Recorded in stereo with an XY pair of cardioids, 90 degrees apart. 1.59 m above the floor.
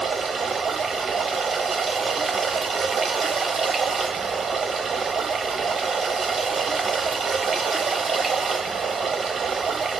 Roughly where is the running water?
Ahead right.